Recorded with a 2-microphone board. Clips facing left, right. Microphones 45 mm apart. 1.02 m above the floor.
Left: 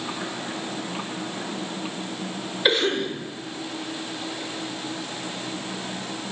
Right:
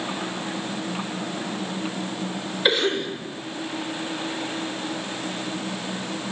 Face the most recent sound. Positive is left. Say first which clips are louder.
# even
turn(degrees=0)  # may be behind; listen again after turning